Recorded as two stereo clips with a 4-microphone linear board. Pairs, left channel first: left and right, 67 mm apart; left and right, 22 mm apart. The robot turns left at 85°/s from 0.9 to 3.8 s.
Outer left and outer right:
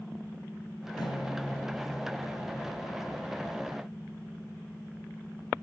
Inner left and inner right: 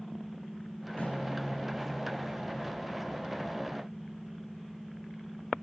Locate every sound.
1.0 s a guitar: 110° left, 2 m; by 2.6 s 25° right, 2 m